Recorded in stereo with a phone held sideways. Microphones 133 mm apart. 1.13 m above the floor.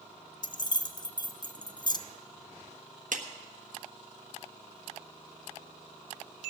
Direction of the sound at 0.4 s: 35° left (ahead or behind).